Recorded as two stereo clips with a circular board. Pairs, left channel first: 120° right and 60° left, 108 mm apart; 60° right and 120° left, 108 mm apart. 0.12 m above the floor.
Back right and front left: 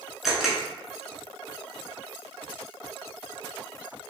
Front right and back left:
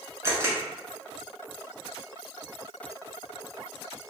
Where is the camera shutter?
140° left, 0.8 m.